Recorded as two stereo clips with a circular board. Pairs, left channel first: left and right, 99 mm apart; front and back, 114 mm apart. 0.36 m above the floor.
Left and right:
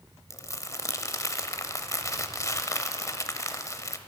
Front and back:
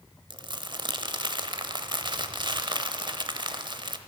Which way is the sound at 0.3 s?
140° left.